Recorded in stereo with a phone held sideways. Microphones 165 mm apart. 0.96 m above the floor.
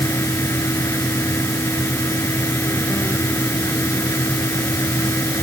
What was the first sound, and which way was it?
A fan, 15° left (ahead or behind).